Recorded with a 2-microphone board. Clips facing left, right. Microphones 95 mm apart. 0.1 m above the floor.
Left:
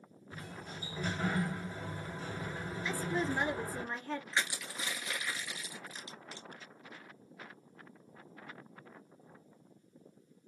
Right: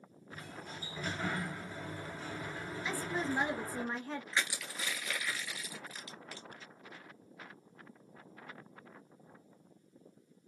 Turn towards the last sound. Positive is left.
turn(degrees=25)  # may be behind; listen again after turning